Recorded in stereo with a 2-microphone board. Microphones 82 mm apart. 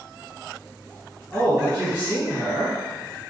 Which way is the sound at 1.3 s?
5° right (ahead or behind).